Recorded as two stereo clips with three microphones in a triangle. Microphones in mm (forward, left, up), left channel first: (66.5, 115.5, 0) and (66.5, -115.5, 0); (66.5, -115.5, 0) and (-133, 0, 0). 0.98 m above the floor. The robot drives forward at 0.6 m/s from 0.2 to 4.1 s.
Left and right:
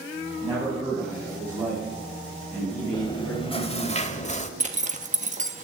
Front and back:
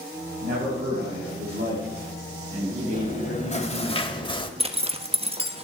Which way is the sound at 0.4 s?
165° right.